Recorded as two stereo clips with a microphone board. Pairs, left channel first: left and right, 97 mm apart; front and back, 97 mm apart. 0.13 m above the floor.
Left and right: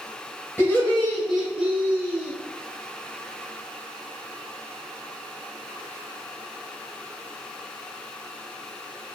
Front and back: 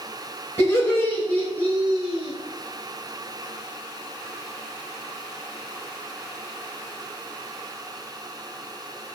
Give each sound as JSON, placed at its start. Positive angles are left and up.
{"t": 0.6, "sound": "laughter", "azimuth_deg": 45, "distance_m": 1.3}